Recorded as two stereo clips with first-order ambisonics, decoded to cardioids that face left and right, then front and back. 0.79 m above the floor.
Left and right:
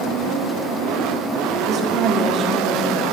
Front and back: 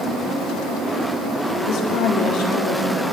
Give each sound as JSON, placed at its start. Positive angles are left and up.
{"t": 1.6, "sound": "a woman speaking", "azimuth_deg": -40, "distance_m": 2.0}